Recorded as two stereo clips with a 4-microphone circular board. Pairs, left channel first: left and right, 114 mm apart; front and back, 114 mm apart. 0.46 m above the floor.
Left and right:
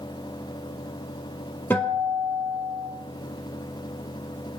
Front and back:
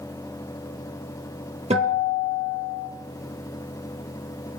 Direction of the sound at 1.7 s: 160° left.